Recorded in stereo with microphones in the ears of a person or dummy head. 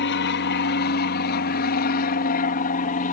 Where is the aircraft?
55° left (ahead or behind); by 3.1 s 40° left (ahead or behind).